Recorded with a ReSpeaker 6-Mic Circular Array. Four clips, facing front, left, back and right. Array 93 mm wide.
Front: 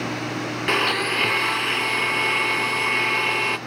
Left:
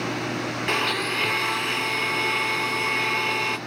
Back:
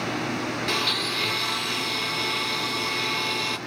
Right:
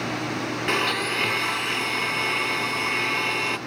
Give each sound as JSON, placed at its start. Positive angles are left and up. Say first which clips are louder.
{"t": 0.7, "sound": "a blender", "louder": "right 1 dB, front 5 dB", "azimuth_deg": -5, "distance_m": 0.6}